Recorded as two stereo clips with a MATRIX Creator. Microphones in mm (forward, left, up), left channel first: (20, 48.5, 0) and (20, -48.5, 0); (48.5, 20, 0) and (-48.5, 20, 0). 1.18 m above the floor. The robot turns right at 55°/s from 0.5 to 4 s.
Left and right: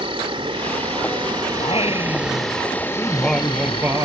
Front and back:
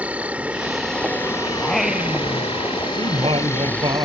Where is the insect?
105° right; by 4.0 s 85° left.